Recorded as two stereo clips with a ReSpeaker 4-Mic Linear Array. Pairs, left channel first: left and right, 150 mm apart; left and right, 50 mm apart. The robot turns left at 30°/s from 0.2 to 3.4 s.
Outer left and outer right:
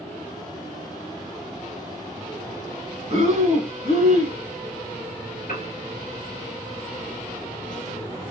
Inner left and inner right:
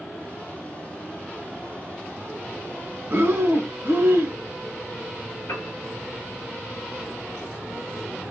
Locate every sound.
3.1 s breathing: 40° right (ahead or behind), 1.3 m; by 4.4 s 50° right (ahead or behind), 1.3 m
5.5 s a piano: 60° left (ahead or behind), 1.2 m